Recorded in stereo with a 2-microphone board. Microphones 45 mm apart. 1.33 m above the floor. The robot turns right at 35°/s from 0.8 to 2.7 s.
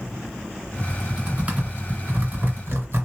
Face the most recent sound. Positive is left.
turn(degrees=-55)  # may be behind; listen again after turning